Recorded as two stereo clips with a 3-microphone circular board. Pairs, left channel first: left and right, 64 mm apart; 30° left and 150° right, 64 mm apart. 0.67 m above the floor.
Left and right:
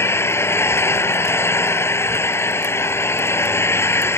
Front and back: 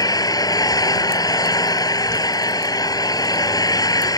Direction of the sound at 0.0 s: 40° left.